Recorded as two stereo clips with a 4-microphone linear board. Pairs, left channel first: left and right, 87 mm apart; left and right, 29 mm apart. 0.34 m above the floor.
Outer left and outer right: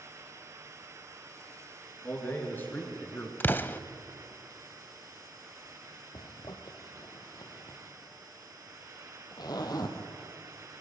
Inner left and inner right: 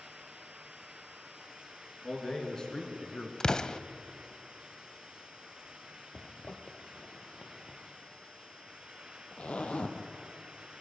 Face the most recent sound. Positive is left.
turn(degrees=45)  # may be behind; listen again after turning